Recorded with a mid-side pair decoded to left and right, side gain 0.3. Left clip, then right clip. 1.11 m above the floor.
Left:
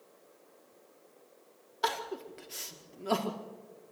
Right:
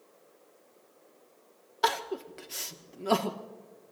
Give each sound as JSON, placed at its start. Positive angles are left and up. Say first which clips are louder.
{"t": 1.8, "sound": "crying", "louder": "right 4 dB", "azimuth_deg": -45, "distance_m": 1.8}